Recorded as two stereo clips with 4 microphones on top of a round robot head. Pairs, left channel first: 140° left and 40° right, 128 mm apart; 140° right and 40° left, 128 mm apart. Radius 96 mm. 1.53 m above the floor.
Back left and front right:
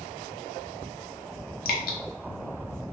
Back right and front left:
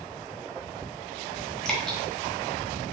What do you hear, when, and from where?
1.6 s dripping: 130° left, 0.8 m